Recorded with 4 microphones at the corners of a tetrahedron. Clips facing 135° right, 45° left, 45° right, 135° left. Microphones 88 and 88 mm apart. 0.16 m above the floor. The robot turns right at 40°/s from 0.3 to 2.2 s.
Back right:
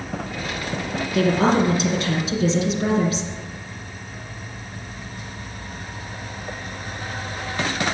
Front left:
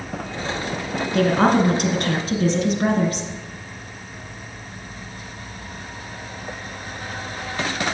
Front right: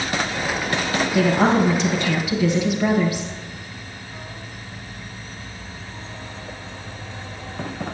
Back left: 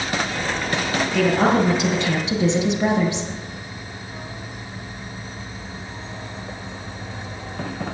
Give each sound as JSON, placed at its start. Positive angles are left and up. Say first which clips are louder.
{"t": 1.1, "sound": "a woman speaking", "louder": "front left 1 dB, even", "azimuth_deg": 35, "distance_m": 2.0}